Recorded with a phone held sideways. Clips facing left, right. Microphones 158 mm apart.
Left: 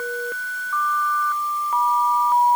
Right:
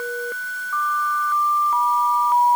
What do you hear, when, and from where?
Only background noise.